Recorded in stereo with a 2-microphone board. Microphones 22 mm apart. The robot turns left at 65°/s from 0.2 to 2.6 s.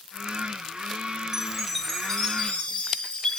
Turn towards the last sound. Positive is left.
turn(degrees=115)